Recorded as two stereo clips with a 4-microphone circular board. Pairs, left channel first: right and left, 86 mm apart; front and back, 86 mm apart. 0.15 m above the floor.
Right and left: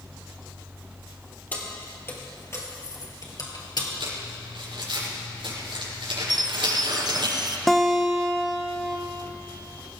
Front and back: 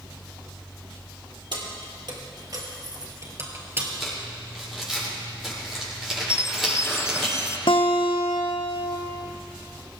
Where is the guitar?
5° right, 1.6 m.